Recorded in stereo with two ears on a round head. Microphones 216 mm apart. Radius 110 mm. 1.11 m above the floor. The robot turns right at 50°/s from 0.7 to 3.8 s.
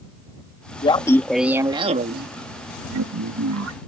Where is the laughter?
155° left; by 3.8 s 60° right.